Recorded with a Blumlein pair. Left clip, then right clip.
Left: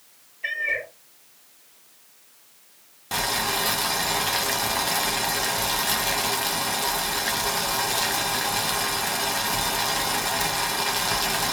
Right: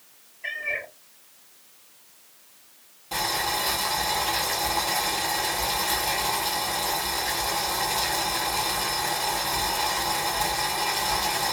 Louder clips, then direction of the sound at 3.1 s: Left 1 dB; 30° left.